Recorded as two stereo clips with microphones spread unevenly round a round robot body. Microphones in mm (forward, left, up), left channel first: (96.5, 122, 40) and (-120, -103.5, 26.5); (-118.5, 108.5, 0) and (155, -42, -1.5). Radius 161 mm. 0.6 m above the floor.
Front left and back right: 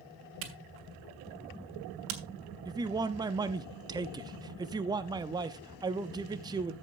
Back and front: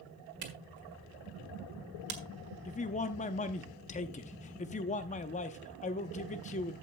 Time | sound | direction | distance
0.4 | a camera shutter | 85° right | 1.6 m
2.6 | a man speaking | 175° left | 0.6 m